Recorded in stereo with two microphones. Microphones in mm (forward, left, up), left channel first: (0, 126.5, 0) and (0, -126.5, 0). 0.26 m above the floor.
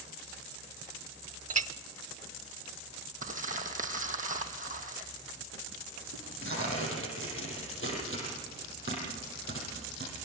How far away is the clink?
About 0.6 m.